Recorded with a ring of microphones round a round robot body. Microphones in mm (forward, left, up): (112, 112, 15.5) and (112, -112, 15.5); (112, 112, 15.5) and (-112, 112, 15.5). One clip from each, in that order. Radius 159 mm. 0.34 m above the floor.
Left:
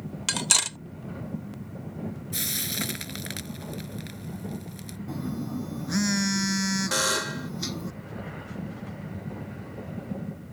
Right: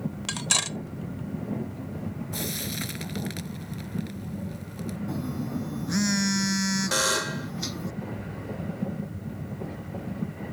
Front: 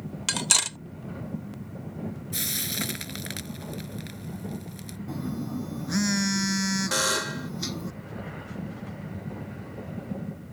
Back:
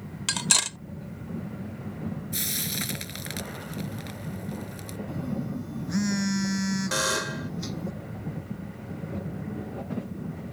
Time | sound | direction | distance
0.3 | cutlery clinking | 75° left | ?
2.3 | frying | 65° left | ?
5.1 | a phone buzzing | 20° left | ?
6.9 | a buzzer | 20° left | ?